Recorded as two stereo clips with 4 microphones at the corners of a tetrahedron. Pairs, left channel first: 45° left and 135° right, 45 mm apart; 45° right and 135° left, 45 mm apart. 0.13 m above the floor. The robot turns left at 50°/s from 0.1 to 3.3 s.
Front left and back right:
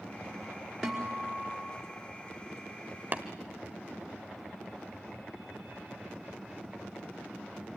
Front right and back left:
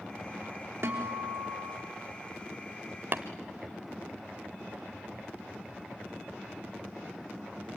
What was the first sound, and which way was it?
A guitar, 135° left.